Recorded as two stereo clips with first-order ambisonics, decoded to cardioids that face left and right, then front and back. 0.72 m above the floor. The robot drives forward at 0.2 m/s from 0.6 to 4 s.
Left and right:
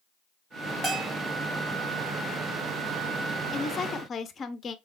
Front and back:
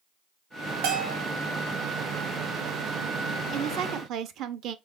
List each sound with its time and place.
0.8 s a bell: 165° right, 2.5 m; by 1.2 s 170° right, 2.5 m
3.5 s a woman speaking: 145° left, 0.5 m; by 4.8 s 150° left, 0.6 m